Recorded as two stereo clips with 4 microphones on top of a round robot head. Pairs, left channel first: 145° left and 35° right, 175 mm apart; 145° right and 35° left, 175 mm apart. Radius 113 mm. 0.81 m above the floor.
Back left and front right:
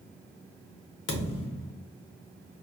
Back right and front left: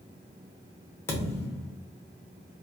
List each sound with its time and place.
1.1 s a thud: 135° left, 0.9 m